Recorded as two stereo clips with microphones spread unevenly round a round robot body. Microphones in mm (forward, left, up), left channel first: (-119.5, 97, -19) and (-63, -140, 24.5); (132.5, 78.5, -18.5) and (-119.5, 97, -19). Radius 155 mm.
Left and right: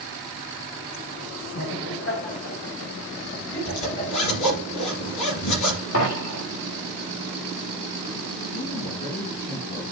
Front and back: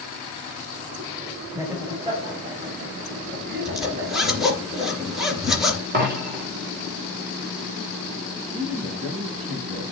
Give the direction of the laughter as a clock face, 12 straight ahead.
9 o'clock.